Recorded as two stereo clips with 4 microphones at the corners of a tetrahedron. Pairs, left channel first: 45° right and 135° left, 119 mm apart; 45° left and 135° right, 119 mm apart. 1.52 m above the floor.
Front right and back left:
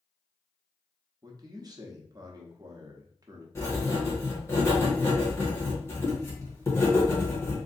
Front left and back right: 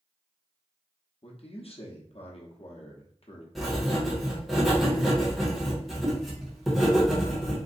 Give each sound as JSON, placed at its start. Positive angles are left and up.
{"t": 1.2, "sound": "a man speaking", "azimuth_deg": 80, "distance_m": 0.8}
{"t": 3.5, "sound": "writing", "azimuth_deg": -45, "distance_m": 1.2}